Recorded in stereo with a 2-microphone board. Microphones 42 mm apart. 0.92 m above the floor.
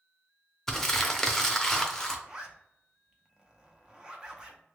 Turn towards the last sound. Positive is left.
turn(degrees=-20)  # may be behind; listen again after turning